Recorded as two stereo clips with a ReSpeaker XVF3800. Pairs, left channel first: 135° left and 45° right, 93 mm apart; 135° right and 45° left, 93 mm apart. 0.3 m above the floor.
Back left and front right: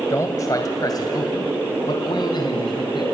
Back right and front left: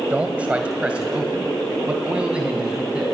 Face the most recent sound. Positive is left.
turn(degrees=120)